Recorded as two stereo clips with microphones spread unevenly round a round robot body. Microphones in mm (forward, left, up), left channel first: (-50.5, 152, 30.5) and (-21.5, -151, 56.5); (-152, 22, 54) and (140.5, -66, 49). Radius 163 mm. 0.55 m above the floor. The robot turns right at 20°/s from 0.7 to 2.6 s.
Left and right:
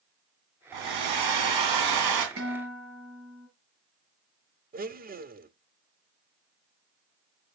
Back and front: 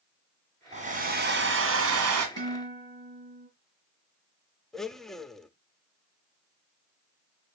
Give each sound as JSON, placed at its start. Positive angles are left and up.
{"t": 0.7, "sound": "a hair dryer", "azimuth_deg": -85, "distance_m": 2.5}
{"t": 2.4, "sound": "a guitar", "azimuth_deg": -35, "distance_m": 4.5}
{"t": 4.7, "sound": "a blender", "azimuth_deg": -105, "distance_m": 0.9}